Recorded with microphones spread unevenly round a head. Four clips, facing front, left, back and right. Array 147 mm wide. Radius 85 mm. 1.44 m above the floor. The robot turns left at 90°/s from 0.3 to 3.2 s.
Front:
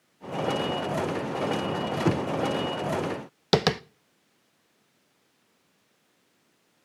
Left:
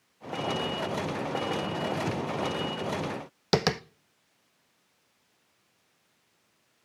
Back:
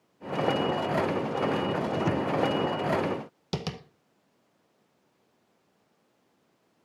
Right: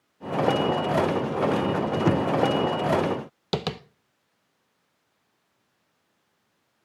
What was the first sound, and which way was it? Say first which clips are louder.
Knocking: right 9 dB, front 2 dB; 45° right.